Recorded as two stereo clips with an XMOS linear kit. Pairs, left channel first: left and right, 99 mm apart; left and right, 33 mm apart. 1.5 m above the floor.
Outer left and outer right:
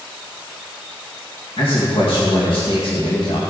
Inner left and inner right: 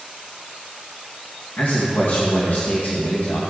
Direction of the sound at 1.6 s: 60° left (ahead or behind).